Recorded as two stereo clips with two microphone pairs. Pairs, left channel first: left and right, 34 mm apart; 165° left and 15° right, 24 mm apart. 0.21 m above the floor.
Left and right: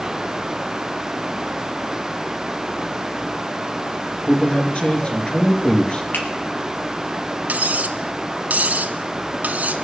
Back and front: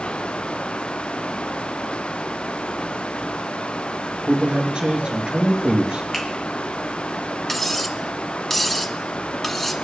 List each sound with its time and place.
4.3 s a man speaking: 40° left, 3 m
6.1 s a finger snap: 80° left, 4 m
7.5 s cutlery clinking: 115° right, 1.1 m